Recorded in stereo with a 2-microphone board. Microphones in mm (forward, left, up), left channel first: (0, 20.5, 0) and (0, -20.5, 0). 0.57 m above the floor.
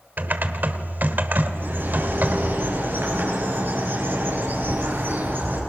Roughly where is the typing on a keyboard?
Right.